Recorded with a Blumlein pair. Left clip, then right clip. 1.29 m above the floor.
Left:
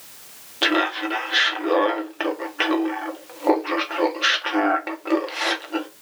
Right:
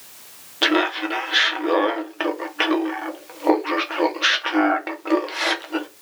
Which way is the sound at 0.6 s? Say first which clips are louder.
Right 1 dB; 5° right.